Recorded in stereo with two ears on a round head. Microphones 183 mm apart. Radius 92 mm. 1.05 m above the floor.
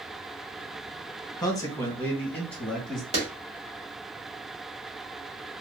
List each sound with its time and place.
1.4 s a man speaking: 20° left (ahead or behind), 1.0 m; by 3.0 s centre (ahead or behind), 1.7 m
3.1 s a clap: 35° right (ahead or behind), 2 m